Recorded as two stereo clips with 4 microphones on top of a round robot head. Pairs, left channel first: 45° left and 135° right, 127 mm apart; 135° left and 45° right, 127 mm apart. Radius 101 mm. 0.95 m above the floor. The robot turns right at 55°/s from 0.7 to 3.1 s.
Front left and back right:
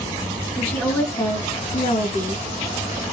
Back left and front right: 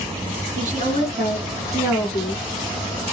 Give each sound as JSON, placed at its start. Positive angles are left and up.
{"t": 0.6, "sound": "a woman speaking", "azimuth_deg": -35, "distance_m": 1.8}